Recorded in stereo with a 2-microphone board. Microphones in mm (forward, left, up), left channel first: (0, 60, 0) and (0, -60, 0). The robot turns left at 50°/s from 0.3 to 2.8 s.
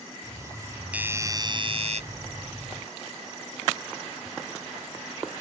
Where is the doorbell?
10° right; by 2.0 s 65° right.